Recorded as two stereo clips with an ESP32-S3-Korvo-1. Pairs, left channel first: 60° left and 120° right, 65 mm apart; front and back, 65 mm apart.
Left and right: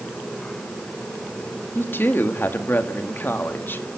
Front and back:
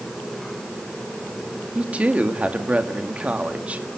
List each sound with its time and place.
1.8 s a woman speaking: 115° left, 1.8 m